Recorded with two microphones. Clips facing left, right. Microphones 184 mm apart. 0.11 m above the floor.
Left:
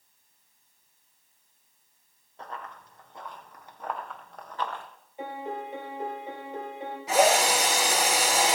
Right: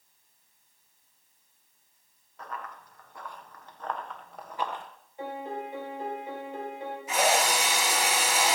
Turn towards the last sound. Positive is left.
turn(degrees=75)  # may be behind; listen again after turning